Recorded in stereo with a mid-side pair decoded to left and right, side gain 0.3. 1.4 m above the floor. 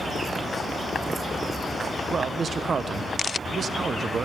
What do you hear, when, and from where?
2.1 s a man speaking: 65° right, 0.9 m